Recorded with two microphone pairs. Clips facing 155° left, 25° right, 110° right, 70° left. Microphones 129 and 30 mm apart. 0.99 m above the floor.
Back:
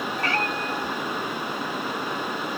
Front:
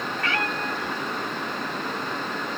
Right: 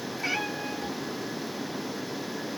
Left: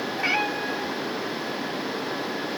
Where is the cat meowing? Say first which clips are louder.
Back 1 dB, left 5 dB; 105° left, 0.9 m; by 2.6 s 110° left, 2.5 m.